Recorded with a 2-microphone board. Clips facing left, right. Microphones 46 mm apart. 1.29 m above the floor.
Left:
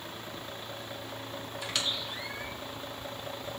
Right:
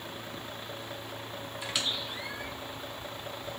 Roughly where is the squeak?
Centre.